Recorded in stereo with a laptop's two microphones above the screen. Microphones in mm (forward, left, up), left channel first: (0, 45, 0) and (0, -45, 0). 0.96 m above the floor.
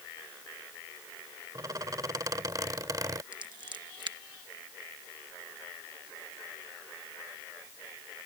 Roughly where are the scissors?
Right.